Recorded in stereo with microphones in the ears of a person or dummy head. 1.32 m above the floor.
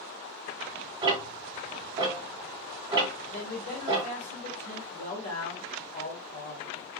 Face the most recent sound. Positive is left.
turn(degrees=45)  # may be behind; listen again after turning